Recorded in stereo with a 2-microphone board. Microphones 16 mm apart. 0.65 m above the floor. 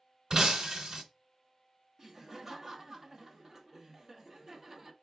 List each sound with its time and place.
0.3 s breaking glass: 55° right (ahead or behind), 1.1 m
2.0 s laughter: 25° right (ahead or behind), 0.8 m